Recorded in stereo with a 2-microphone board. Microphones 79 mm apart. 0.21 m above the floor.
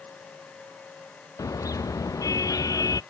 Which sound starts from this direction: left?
A car horn, at 1.4 s.